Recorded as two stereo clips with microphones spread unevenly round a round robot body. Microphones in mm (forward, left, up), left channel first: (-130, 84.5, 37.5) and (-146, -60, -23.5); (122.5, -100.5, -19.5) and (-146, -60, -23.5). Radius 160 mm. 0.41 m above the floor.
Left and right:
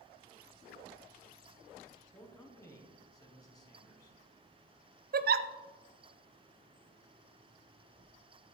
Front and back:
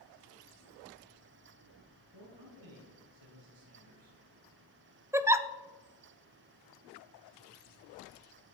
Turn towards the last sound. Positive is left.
turn(degrees=-105)